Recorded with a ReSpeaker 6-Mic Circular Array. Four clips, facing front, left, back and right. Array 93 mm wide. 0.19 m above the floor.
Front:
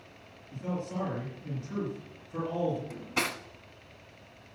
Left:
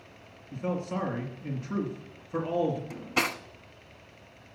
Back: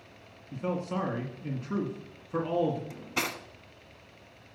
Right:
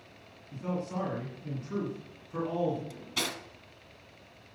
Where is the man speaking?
155° left, 2 m.